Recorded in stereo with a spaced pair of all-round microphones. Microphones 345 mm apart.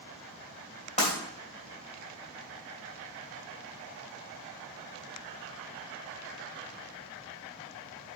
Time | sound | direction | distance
1.0 | breaking glass | 20° left (ahead or behind) | 3.5 m